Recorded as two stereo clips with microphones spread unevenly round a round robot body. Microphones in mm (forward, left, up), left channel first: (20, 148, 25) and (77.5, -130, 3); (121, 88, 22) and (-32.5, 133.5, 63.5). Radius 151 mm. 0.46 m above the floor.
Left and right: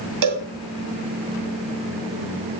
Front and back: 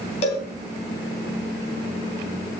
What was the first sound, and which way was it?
A cowbell, 70° right.